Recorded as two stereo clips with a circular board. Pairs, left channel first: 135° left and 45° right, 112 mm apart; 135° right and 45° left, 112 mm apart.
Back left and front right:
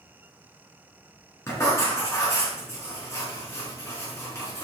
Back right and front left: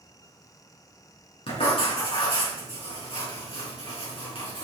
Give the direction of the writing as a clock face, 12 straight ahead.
5 o'clock.